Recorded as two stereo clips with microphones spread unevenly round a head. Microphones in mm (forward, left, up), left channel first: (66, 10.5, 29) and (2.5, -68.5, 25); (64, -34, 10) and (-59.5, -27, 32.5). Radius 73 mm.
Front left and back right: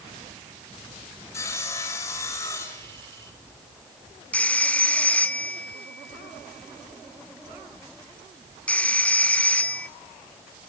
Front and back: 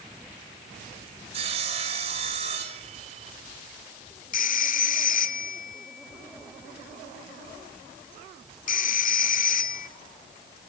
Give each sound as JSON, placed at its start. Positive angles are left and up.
{"t": 1.3, "sound": "sawing", "azimuth_deg": 125, "distance_m": 4.0}
{"t": 4.3, "sound": "a phone ringing", "azimuth_deg": -25, "distance_m": 1.7}